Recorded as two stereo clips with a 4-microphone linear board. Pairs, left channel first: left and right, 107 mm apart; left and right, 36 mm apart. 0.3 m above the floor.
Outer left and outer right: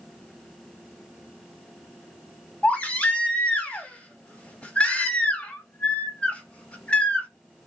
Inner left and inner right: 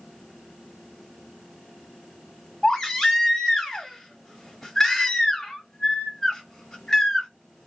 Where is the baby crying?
10° left (ahead or behind), 1.6 m.